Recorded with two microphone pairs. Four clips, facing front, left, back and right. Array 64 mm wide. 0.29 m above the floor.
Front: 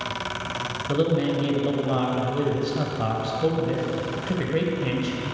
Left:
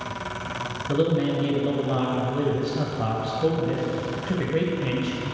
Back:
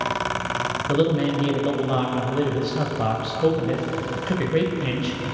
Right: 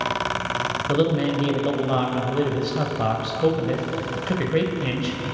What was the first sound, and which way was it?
A man speaking, 95° right.